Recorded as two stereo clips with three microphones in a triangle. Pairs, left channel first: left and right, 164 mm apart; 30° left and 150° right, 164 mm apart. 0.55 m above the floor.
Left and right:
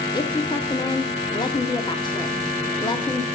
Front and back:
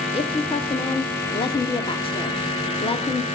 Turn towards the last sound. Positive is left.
turn(degrees=50)